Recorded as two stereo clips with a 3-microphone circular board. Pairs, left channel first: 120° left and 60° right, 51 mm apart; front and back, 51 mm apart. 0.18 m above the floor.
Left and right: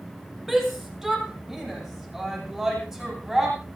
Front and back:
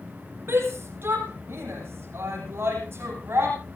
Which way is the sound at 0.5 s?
145° right.